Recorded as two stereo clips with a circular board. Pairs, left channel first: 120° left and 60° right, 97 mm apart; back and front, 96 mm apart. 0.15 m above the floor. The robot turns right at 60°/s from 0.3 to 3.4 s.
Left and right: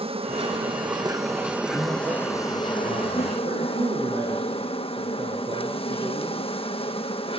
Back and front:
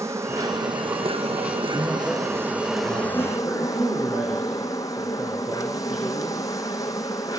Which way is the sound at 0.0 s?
60° right.